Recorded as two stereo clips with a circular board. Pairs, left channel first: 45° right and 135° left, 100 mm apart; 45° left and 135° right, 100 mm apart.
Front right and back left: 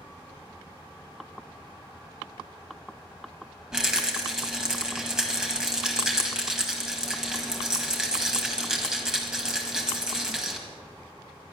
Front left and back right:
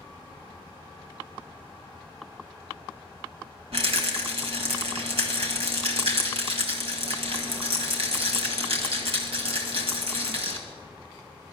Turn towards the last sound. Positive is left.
turn(degrees=-140)